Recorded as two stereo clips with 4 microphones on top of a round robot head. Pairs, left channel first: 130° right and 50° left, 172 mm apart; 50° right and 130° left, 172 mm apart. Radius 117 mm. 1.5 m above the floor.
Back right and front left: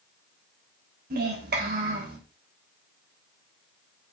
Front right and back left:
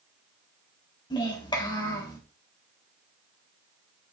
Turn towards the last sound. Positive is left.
turn(degrees=15)